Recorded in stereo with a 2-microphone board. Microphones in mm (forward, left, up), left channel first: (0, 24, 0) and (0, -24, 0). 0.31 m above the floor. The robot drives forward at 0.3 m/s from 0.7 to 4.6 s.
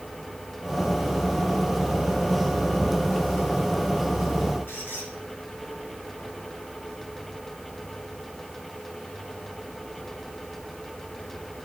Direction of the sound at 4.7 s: 60° left (ahead or behind).